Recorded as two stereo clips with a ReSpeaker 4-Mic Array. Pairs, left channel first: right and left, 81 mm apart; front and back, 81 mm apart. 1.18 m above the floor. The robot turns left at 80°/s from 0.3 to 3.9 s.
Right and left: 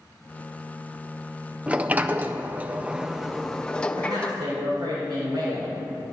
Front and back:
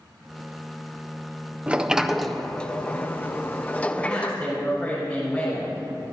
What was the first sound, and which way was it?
A sliding door, 135° left.